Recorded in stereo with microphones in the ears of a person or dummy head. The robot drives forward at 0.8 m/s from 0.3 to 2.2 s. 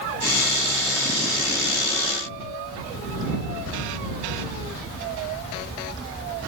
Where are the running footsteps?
No running footsteps in this recording.